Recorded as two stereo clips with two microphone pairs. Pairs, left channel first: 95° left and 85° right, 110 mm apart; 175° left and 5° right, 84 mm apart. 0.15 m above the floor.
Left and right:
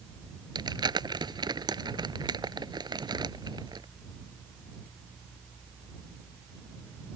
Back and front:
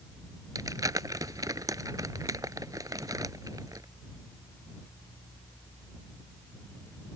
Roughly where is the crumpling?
Ahead right.